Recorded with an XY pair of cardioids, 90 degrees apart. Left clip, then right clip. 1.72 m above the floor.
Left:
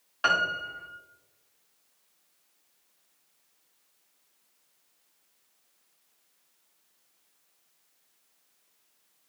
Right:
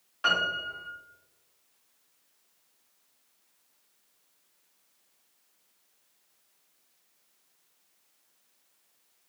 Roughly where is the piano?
Ahead left.